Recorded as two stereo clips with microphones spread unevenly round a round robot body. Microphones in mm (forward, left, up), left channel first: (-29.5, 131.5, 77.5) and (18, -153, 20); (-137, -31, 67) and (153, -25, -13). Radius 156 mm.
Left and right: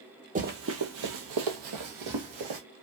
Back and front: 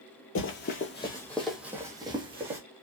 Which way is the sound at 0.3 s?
150° right.